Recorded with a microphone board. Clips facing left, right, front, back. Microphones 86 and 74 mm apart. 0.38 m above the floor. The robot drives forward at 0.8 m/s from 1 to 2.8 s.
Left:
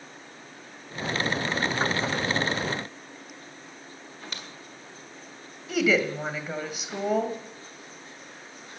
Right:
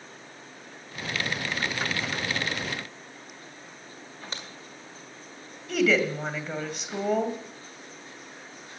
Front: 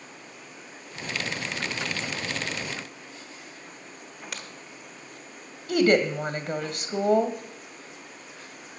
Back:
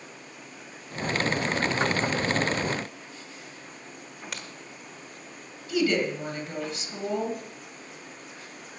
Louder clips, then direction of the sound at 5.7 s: Even, front 4 dB; 5° left.